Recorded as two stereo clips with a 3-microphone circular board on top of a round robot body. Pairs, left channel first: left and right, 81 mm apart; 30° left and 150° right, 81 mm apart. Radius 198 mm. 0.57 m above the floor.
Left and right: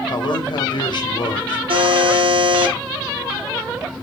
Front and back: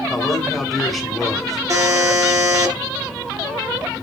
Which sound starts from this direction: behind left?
A man speaking, at 0.1 s.